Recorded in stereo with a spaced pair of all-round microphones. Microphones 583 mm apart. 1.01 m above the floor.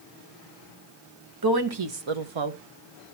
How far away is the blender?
I don't hear a blender.